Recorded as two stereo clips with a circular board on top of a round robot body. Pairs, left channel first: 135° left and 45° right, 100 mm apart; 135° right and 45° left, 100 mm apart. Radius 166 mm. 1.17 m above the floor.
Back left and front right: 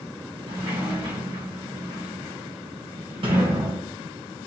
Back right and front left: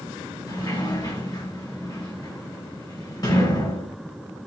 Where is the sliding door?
85° right, 2.5 m.